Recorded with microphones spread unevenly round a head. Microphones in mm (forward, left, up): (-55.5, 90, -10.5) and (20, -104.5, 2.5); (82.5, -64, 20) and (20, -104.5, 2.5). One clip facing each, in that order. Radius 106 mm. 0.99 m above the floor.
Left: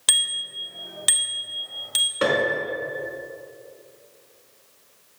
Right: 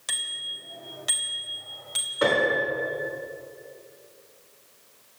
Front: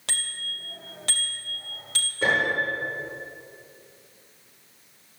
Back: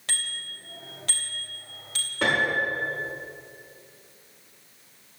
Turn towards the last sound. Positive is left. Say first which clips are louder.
# left 1 dB, even
turn(degrees=165)